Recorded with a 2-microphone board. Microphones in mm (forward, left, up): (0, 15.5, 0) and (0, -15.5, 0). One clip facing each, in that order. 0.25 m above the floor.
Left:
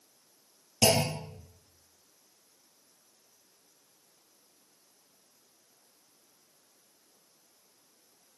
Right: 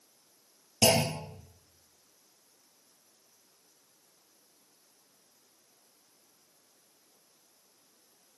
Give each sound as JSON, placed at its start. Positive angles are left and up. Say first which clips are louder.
{"t": 0.8, "sound": "a clunk", "louder": "even", "side_deg": -15, "distance_m": 2.0}